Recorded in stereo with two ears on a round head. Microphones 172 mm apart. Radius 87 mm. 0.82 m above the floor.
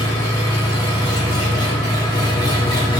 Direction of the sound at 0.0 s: 20° left (ahead or behind).